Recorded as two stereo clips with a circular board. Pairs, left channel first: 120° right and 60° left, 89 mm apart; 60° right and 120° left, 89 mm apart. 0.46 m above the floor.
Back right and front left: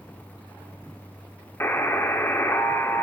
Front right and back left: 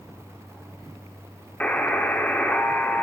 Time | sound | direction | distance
1.6 | a buzzer | 110° right | 0.8 m